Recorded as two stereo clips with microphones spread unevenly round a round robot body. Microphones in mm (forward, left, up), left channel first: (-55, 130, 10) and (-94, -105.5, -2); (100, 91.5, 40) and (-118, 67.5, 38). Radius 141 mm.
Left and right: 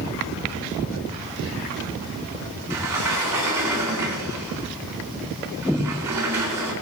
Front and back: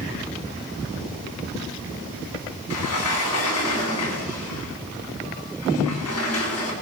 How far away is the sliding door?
About 3.5 m.